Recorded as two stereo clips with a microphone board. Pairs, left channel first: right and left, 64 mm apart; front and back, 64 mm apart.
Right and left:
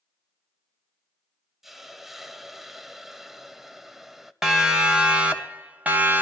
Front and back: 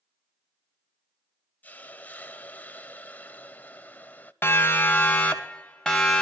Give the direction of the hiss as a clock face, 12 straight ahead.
12 o'clock.